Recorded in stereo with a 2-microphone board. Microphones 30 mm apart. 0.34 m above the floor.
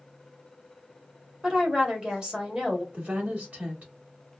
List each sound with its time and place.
1.4 s a woman speaking: 25° right (ahead or behind), 1.7 m
2.9 s a woman speaking: 50° right (ahead or behind), 2 m